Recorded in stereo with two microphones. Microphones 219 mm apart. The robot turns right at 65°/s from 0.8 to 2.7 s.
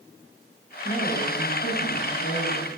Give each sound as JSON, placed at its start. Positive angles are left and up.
{"t": 0.8, "sound": "a woman speaking", "azimuth_deg": 0, "distance_m": 3.5}